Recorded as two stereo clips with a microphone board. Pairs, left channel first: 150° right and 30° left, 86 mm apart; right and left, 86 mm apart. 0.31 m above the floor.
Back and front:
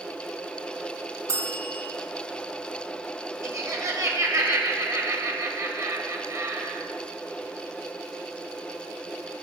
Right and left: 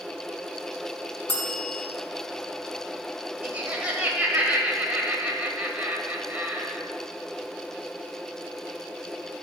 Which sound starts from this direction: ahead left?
Laughter, at 3.4 s.